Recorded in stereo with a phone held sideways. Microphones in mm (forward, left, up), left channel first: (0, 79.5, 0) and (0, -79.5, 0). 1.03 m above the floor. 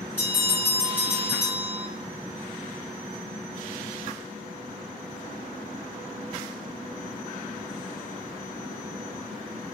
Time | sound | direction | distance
0.2 | a bell | 10° left (ahead or behind) | 1.7 m